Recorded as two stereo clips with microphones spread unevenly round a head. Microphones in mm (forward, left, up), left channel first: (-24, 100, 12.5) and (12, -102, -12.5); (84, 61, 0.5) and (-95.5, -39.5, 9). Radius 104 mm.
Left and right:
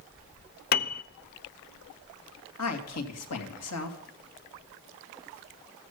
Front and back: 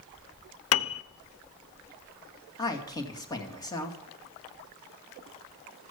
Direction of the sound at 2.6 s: 100° left.